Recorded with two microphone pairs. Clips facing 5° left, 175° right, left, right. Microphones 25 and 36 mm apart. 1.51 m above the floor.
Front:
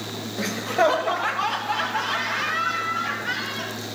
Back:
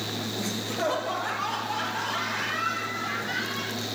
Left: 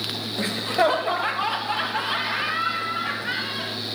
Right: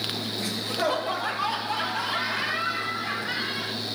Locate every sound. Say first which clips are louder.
0.4 s laughter: front 10 dB, left 8 dB; 40° left, 0.8 m; by 3.8 s 45° left, 4.5 m